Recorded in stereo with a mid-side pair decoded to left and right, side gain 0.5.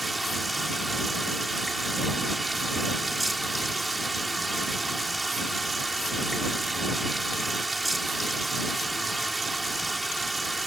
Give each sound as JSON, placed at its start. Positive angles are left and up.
{"t": 0.0, "sound": "running water", "azimuth_deg": -15}